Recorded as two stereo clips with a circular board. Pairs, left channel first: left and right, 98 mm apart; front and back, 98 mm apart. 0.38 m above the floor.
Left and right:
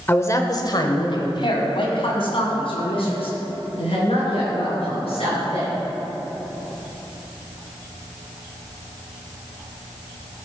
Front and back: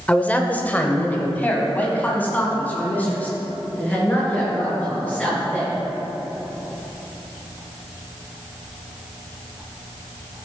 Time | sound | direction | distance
0.1 | a man speaking | 55° left | 0.8 m